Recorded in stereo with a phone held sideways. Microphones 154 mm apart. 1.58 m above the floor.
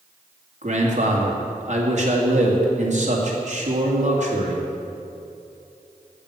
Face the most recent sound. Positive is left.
turn(degrees=-55)  # may be behind; listen again after turning